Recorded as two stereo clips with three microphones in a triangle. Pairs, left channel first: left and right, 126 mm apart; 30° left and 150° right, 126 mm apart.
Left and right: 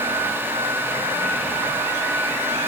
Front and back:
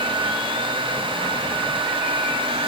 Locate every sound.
Only background noise.